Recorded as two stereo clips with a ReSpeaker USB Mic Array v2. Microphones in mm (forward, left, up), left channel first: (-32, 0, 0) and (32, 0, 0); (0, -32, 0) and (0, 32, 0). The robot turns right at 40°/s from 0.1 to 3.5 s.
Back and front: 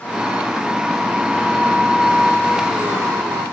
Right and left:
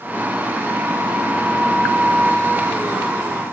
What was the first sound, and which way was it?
Only background noise.